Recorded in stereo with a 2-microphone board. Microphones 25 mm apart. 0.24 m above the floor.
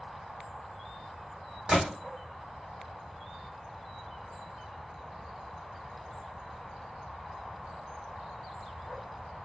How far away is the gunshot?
About 2.5 m.